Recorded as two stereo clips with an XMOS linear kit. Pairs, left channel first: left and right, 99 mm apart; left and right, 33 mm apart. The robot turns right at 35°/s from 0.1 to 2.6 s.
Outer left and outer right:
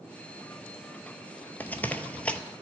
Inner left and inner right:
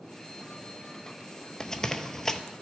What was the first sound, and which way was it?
Running footsteps, 20° left (ahead or behind).